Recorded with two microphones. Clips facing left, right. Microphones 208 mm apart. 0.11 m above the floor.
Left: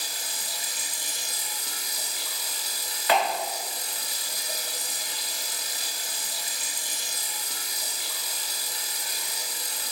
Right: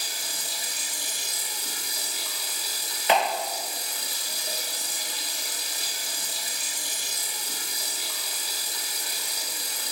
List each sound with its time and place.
0.0 s running water: 70° right (ahead or behind), 1.3 m
3.1 s a clap: 25° right (ahead or behind), 1.3 m